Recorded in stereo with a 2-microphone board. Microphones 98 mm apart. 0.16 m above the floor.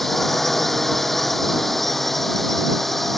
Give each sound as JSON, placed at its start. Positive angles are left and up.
{"t": 0.0, "sound": "a drone", "side_deg": 0}